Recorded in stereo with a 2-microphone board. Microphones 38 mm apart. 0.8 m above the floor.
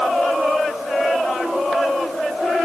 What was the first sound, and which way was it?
Only background noise.